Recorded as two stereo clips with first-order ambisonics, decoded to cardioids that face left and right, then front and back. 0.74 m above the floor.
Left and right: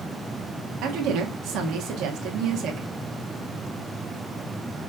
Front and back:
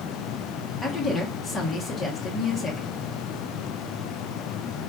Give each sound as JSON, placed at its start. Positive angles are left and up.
{"t": 0.8, "sound": "a woman speaking", "azimuth_deg": -70, "distance_m": 1.1}